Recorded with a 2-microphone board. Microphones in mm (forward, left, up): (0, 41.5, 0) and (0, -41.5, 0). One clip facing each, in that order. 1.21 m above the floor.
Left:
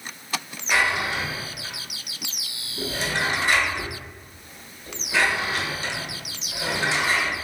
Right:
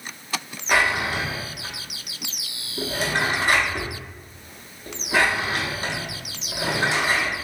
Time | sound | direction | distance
0.7 | a drawer | 45° right (ahead or behind) | 0.8 m